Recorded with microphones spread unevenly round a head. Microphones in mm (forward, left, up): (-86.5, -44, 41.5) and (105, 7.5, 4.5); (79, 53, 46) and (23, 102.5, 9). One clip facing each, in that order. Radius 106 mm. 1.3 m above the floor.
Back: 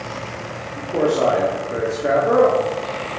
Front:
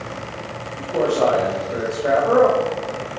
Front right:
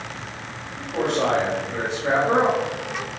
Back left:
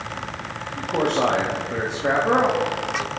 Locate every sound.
0.8 s a man speaking: 125° left, 1.4 m